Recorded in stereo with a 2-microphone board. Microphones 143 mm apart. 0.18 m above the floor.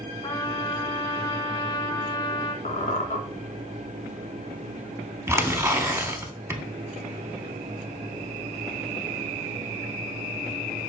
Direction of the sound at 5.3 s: 20° right (ahead or behind).